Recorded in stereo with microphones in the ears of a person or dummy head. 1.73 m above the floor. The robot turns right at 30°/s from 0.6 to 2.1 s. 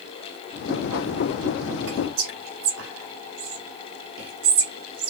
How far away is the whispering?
About 2 m.